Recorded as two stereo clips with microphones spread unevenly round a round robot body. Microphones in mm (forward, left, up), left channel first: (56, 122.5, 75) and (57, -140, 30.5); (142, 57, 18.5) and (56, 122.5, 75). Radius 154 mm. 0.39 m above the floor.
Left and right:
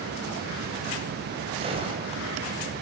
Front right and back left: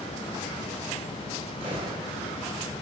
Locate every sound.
1.6 s a gunshot: 150° right, 2.5 m